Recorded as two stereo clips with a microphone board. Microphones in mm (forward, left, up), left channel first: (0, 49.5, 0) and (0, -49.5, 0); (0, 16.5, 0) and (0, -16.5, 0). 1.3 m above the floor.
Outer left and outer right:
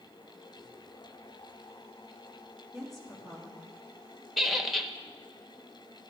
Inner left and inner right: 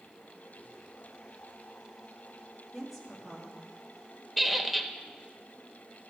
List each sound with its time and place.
2.7 s a woman speaking: centre (ahead or behind), 2.5 m
4.4 s a squeak: centre (ahead or behind), 0.6 m